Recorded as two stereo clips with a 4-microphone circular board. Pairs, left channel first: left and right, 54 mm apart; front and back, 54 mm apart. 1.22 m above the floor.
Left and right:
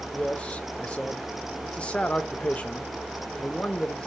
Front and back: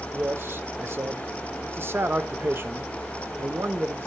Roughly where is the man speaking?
Behind left.